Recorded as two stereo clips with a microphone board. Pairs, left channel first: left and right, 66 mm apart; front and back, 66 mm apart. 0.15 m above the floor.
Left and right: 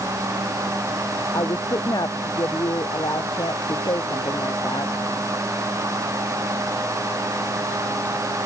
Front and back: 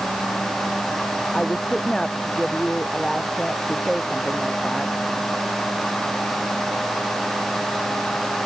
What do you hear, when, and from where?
1.3 s a woman speaking: 80° left; by 4.9 s 90° left